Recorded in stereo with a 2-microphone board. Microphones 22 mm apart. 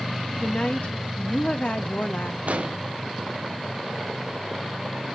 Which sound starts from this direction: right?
An explosion, at 2.5 s.